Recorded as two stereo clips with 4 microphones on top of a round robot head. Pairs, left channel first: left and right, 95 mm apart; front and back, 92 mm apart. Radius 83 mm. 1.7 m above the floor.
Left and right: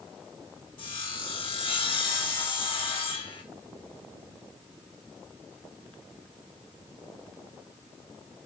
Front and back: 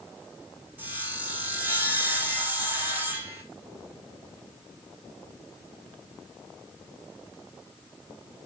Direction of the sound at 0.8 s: 115° left.